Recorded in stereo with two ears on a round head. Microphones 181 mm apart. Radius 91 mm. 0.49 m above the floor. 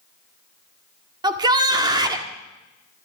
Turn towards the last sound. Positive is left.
turn(degrees=-20)  # may be behind; listen again after turning